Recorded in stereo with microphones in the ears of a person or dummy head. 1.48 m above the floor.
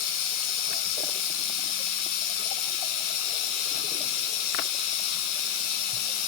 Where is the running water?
55° left (ahead or behind), 1.5 m.